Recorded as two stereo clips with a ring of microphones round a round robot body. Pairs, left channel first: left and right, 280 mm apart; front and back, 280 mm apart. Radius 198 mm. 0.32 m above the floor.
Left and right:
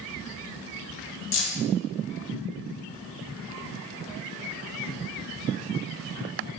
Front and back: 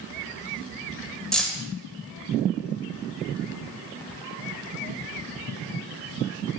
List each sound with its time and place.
1.3 s keys jangling: 85° left, 0.6 m